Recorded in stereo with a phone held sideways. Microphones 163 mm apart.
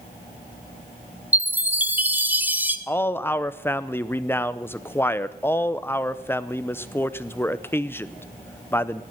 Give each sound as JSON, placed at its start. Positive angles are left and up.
{"t": 1.3, "sound": "a chime", "side_deg": -10, "distance_m": 0.8}
{"t": 2.9, "sound": "a man speaking", "side_deg": 15, "distance_m": 0.6}